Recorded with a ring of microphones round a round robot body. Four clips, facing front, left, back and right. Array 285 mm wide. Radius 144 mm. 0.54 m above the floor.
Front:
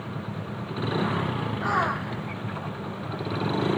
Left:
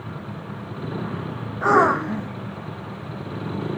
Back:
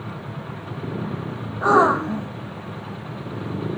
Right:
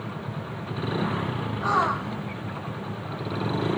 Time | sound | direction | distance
1.6 | a gasp | 140° left | ?